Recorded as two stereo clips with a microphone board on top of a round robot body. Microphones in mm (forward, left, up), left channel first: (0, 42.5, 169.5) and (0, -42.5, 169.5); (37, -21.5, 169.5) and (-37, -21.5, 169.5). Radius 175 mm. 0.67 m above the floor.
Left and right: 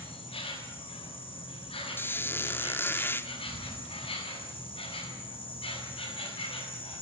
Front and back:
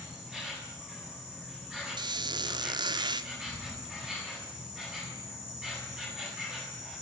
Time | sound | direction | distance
0.0 | an insect | 100° left | 7 m
2.0 | a squeak | 155° left | 1.0 m